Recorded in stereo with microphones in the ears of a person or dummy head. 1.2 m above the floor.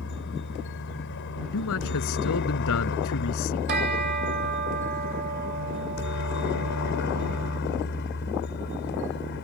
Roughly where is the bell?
Right.